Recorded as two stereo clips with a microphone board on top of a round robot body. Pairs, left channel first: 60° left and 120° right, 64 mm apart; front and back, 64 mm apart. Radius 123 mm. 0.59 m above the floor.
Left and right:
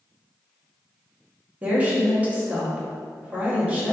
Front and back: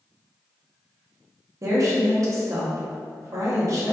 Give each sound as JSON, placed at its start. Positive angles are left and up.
{"t": 1.6, "sound": "a woman speaking", "azimuth_deg": 175, "distance_m": 0.9}